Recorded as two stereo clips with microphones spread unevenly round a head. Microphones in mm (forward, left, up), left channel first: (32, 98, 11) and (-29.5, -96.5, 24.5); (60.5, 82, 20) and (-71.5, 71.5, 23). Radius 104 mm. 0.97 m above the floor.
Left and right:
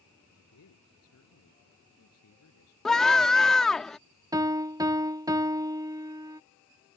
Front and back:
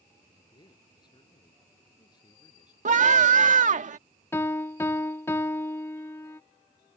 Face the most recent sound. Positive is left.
turn(degrees=-45)